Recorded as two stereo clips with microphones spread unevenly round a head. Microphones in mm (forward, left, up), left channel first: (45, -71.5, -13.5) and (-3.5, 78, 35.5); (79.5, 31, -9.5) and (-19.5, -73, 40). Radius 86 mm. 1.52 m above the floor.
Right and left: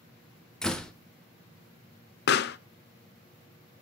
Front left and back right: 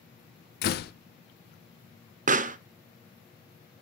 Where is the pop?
95° right, 0.5 m.